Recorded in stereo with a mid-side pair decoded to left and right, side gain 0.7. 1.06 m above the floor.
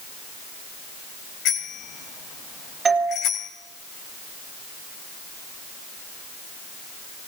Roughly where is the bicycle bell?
Ahead left.